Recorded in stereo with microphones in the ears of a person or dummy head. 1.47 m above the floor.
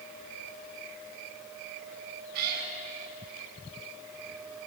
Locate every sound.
2.3 s a cat meowing: 55° right (ahead or behind), 5.5 m